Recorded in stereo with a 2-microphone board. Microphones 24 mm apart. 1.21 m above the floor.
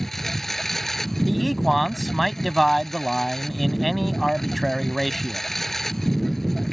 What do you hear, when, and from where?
0.0 s a lawn mower: 10° left (ahead or behind)
1.2 s a man speaking: centre (ahead or behind)